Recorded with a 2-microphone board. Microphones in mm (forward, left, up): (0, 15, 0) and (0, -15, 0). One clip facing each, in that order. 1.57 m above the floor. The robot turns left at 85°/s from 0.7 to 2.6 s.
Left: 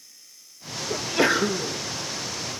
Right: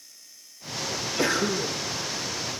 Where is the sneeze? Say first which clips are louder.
Left 4 dB; 60° left, 1.7 m; by 1.8 s 15° right, 1.7 m.